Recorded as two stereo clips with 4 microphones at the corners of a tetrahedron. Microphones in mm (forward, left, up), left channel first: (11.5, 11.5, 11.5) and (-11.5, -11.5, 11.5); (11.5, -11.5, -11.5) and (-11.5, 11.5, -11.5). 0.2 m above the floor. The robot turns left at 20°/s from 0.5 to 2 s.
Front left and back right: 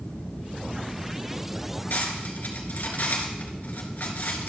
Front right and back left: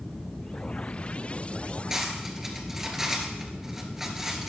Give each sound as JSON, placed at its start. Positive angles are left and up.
{"t": 1.9, "sound": "cutlery clinking", "azimuth_deg": 60, "distance_m": 1.7}